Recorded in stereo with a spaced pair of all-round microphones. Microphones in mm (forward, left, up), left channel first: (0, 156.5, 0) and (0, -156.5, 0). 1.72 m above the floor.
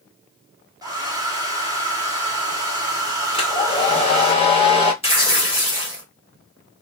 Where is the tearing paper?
20° left (ahead or behind), 1.5 m.